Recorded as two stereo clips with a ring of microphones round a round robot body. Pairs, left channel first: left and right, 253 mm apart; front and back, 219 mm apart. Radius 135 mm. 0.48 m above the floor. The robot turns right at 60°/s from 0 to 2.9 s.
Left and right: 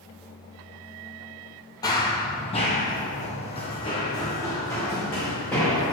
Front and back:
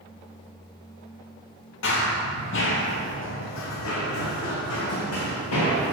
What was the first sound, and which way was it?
Running footsteps, 15° left.